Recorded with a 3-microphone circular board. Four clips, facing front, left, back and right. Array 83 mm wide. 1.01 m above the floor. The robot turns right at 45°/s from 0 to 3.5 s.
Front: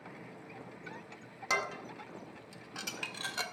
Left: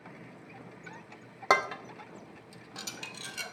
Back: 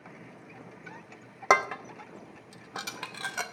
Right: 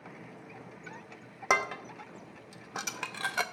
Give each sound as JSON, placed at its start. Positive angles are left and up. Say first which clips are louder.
{"t": 1.5, "sound": "dishes clattering", "louder": "left 2 dB, back 11 dB", "azimuth_deg": 165, "distance_m": 0.7}